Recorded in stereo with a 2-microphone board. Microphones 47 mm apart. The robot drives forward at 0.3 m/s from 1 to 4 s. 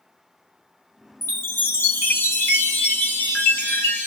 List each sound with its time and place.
1.2 s a chime: 65° left (ahead or behind), 1.4 m; by 4.1 s 40° left (ahead or behind), 1.9 m